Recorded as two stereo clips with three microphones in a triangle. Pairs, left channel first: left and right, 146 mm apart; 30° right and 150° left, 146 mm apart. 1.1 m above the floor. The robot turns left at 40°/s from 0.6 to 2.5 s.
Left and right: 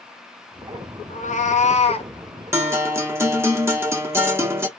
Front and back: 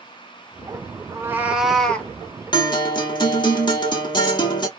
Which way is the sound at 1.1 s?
85° left.